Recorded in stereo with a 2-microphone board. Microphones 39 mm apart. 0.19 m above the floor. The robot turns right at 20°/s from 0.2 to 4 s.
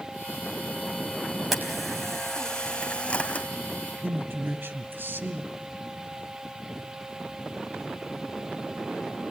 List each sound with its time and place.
1.5 s a camera shutter: 5° right, 3.5 m; by 3.5 s 35° left, 3.5 m
4.0 s a man speaking: 65° right (ahead or behind), 3.5 m